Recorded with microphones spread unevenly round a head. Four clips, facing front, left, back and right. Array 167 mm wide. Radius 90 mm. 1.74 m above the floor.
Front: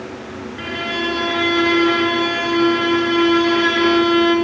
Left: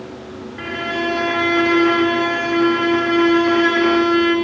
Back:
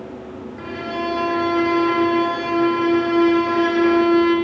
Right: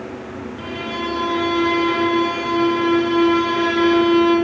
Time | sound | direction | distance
0.6 | a violin | 55° left | 2 m